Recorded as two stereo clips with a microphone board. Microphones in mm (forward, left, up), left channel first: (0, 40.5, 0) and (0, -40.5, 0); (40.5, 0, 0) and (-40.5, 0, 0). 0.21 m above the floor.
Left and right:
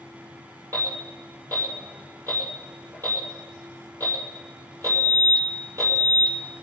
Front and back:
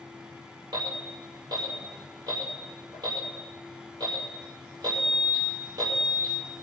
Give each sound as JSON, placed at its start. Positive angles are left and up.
{"t": 0.7, "sound": "an alarm", "azimuth_deg": -145, "distance_m": 6.0}